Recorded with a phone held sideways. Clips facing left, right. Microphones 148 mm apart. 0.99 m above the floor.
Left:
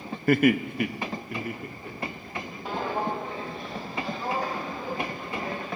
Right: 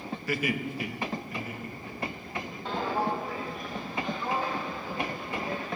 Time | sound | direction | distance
0.3 | laughter | 55° left (ahead or behind) | 0.6 m
2.6 | footsteps | 10° left (ahead or behind) | 1.8 m